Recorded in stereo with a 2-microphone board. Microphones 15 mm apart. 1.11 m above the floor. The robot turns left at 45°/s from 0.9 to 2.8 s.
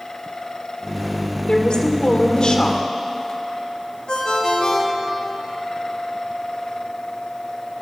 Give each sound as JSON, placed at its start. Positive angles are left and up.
{"t": 1.5, "sound": "a woman speaking", "azimuth_deg": 110, "distance_m": 3.0}
{"t": 4.1, "sound": "a ringtone", "side_deg": 85, "distance_m": 4.0}